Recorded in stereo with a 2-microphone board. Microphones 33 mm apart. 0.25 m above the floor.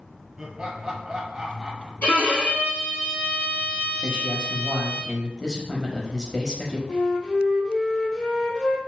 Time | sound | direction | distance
0.4 | laughter | 20° right (ahead or behind) | 1.1 m
2.0 | a violin | 60° left (ahead or behind) | 1.8 m
4.0 | a man speaking | 20° left (ahead or behind) | 0.9 m
6.9 | a flute | 40° left (ahead or behind) | 1.4 m